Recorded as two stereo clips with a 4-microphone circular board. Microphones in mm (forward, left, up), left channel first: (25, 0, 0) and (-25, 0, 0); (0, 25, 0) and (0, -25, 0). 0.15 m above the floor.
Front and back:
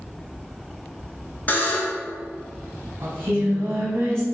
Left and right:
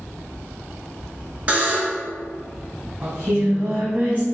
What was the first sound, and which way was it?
A buzzer, 40° right.